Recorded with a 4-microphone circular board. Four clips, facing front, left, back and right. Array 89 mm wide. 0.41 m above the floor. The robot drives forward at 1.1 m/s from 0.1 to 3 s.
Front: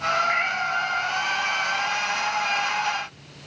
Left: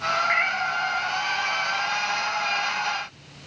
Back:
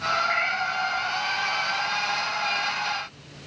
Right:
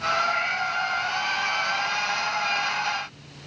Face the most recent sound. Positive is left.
turn(degrees=125)